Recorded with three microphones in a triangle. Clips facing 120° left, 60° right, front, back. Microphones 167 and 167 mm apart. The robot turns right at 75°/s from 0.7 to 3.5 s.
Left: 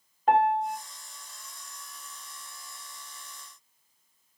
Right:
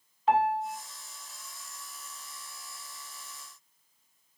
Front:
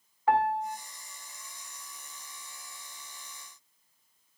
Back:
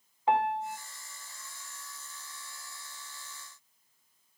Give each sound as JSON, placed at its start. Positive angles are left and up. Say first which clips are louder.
{"t": 0.3, "sound": "a piano", "louder": "left 3 dB, front 2 dB", "azimuth_deg": 115, "distance_m": 1.8}